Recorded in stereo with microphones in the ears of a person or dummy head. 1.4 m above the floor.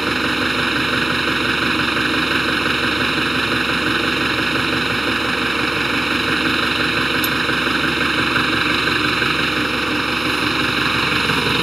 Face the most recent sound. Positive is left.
turn(degrees=-5)  # may be behind; listen again after turning